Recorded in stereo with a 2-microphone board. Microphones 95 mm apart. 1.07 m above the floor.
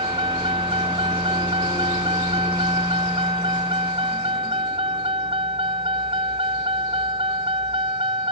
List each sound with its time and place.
0.0 s a vehicle: 70° right (ahead or behind)